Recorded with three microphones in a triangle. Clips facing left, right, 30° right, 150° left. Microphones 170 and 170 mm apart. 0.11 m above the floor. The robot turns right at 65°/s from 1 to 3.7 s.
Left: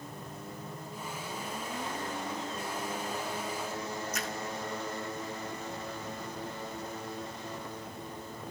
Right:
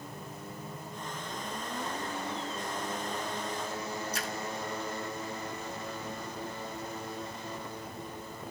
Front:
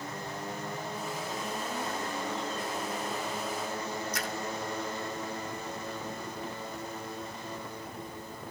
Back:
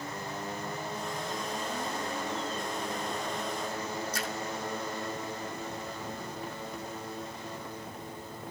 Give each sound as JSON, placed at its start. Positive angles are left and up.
{"t": 4.1, "sound": "a splash", "azimuth_deg": -145, "distance_m": 1.5}